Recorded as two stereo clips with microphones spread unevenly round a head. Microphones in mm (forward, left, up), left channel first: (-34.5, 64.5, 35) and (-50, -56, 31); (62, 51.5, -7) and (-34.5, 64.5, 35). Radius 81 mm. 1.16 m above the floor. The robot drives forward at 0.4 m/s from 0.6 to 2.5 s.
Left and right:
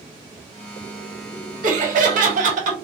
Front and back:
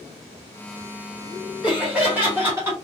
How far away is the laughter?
About 1.5 m.